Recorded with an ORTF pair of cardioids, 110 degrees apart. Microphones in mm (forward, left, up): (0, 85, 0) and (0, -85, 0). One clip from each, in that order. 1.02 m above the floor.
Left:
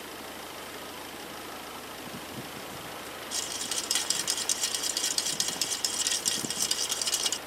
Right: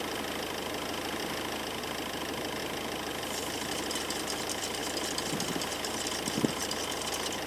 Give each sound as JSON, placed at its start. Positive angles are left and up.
{"t": 0.0, "sound": "an engine running", "azimuth_deg": -45}
{"t": 3.3, "sound": "a rattle", "azimuth_deg": 60}